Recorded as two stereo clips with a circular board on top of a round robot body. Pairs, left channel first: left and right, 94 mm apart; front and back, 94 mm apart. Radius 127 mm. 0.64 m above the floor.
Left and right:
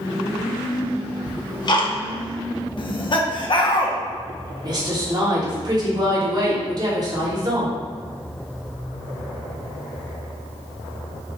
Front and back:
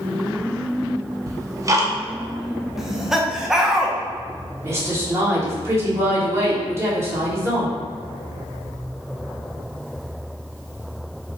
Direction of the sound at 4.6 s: 125° right.